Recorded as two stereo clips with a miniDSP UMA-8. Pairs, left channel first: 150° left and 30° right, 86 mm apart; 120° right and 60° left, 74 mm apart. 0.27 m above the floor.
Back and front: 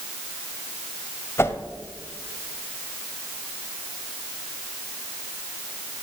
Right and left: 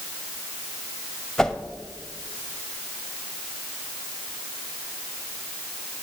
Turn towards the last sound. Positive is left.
turn(degrees=165)